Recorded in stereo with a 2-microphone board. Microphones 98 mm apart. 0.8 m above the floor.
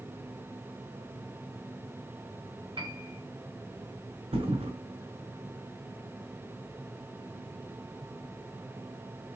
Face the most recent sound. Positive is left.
turn(degrees=-80)